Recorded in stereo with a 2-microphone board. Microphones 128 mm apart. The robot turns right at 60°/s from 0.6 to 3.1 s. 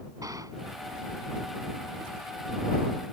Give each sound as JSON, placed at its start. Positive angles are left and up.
{"t": 0.2, "sound": "a gunshot", "side_deg": -30}